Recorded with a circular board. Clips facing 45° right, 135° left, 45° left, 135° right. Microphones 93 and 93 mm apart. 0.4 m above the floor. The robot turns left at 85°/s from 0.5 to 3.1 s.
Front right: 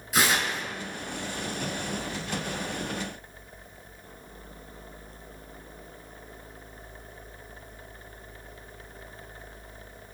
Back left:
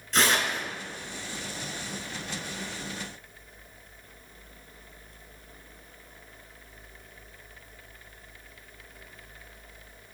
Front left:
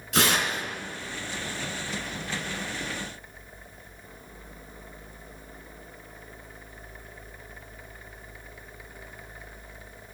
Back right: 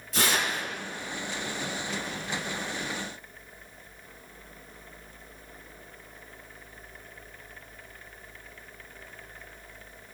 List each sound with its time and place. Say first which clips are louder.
0.1 s tearing paper: even, front left 3 dB; 35° left, 2.5 m; by 0.6 s 25° left, 2.5 m